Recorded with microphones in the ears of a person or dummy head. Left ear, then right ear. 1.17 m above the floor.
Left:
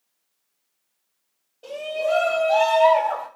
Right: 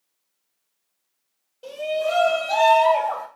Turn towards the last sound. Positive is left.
turn(degrees=-55)  # may be behind; listen again after turning